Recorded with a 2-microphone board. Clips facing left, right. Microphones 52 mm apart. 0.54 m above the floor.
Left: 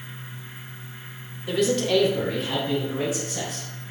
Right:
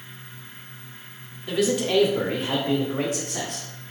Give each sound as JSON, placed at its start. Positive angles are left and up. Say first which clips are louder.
{"t": 1.5, "sound": "a man speaking", "louder": "left 1 dB", "side_deg": 10, "distance_m": 0.8}